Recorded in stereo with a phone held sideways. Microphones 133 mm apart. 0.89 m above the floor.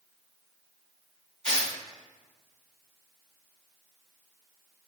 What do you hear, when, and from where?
1.4 s tearing paper: 5° left (ahead or behind), 1.2 m